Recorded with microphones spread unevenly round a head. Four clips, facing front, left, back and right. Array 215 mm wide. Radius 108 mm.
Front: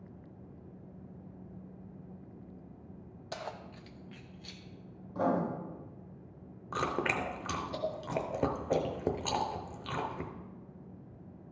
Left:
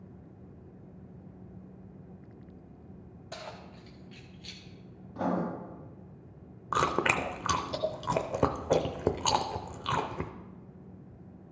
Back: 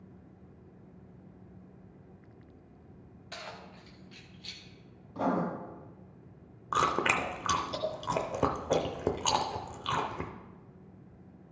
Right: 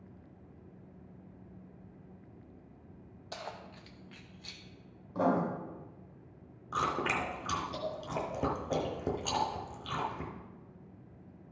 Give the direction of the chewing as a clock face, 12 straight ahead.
8 o'clock.